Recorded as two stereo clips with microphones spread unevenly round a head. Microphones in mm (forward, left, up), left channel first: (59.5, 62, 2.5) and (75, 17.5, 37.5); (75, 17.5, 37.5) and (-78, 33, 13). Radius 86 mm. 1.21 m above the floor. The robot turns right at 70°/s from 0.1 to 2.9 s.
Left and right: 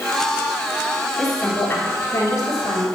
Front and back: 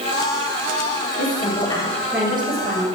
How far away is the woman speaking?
About 3.5 m.